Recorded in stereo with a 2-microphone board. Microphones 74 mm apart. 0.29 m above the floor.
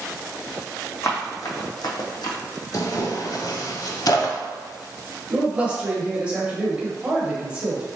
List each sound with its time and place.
1.0 s running footsteps: 40° left (ahead or behind), 1.0 m; by 2.4 s 70° left (ahead or behind), 0.8 m
2.7 s tearing paper: 55° left (ahead or behind), 0.5 m
5.3 s a man speaking: 15° right (ahead or behind), 1.0 m